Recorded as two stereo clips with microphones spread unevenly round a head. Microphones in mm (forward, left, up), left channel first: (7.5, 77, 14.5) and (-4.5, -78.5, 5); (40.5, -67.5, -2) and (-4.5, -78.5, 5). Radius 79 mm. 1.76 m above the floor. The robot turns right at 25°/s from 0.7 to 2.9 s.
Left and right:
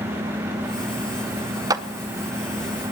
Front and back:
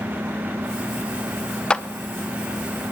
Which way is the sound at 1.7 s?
50° right.